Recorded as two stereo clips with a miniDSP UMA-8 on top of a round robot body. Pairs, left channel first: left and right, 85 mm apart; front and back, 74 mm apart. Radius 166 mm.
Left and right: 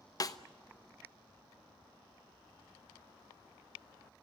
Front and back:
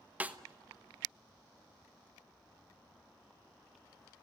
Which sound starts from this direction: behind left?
A snare drum, at 0.2 s.